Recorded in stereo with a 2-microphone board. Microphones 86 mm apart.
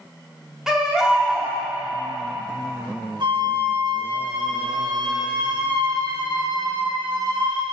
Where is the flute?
65° right (ahead or behind), 1.7 m.